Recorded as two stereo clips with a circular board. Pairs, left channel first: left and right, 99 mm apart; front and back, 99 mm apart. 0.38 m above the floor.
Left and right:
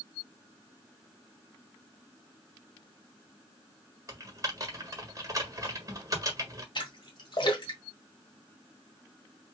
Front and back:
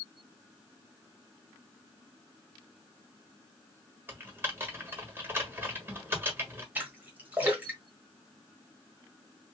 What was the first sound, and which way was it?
Typing on a keyboard, 125° right.